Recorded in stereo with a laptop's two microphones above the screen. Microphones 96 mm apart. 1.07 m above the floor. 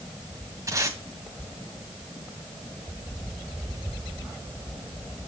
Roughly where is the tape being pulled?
Right.